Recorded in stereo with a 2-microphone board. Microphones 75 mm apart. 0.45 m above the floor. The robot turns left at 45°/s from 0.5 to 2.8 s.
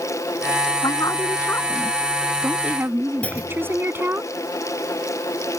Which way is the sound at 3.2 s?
20° left (ahead or behind).